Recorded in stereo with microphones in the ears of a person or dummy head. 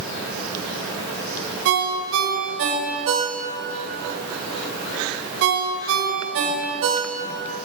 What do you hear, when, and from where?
1.6 s a ringtone: 70° right (ahead or behind), 2 m